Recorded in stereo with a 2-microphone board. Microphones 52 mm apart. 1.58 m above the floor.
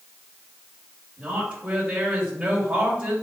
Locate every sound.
1.2 s a woman speaking: 25° right (ahead or behind), 3 m